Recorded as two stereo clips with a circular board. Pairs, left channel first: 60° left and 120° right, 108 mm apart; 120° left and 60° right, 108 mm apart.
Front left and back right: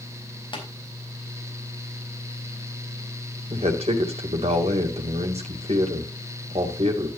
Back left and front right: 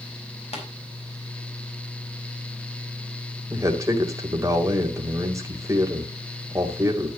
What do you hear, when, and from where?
0.5 s tapping: 100° left, 4 m
3.5 s a man speaking: 120° right, 2.5 m